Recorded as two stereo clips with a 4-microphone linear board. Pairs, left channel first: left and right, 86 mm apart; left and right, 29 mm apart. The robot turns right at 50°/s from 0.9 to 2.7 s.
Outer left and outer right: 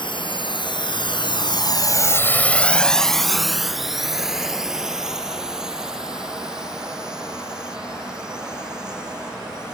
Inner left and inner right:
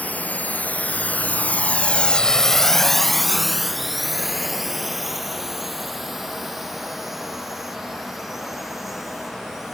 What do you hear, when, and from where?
0.0 s a drone: 70° left (ahead or behind); by 9.8 s 10° right (ahead or behind)